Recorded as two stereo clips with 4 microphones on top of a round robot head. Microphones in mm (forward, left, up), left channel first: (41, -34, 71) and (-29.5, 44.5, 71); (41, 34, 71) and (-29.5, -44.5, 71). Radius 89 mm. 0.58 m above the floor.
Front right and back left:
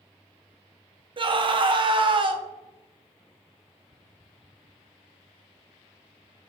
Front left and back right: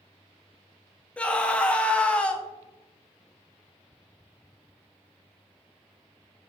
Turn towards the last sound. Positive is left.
turn(degrees=120)